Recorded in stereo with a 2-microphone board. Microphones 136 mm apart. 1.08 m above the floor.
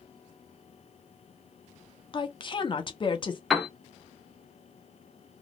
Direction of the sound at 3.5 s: Centre (ahead or behind).